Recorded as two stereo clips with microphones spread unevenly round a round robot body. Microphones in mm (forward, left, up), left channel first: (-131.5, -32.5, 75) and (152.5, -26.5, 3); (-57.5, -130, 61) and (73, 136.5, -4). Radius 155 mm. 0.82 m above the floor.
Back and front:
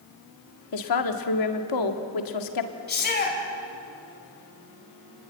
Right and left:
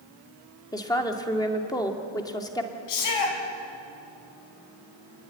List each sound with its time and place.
0.7 s a woman speaking: 160° left, 2 m
2.9 s a shout: 120° right, 6.5 m